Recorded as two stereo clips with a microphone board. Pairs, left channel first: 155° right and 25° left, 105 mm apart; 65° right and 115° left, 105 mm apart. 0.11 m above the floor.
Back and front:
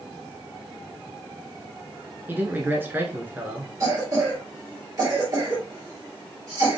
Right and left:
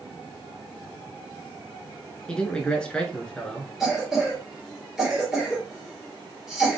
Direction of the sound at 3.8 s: 30° left.